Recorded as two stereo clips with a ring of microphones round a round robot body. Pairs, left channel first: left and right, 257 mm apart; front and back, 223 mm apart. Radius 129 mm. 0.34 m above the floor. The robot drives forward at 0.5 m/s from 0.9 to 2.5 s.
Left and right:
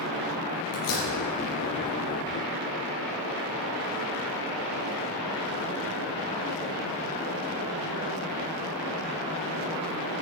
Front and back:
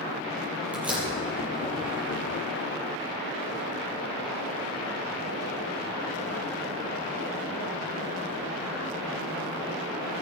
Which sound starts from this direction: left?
A door slam, at 0.7 s.